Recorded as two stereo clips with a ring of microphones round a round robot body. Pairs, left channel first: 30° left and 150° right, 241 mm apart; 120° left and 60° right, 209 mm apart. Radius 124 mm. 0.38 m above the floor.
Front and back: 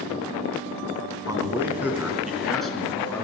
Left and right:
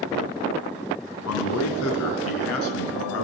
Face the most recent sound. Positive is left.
turn(degrees=115)